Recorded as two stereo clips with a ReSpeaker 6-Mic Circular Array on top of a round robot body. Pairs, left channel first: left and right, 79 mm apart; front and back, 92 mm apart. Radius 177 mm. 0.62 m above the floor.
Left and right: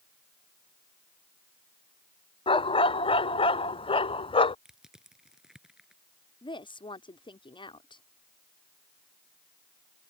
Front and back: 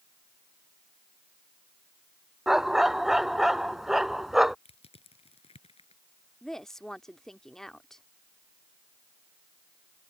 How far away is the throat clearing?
I don't hear throat clearing.